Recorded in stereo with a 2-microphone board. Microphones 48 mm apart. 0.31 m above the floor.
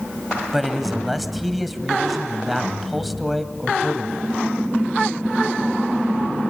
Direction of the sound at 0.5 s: Centre (ahead or behind).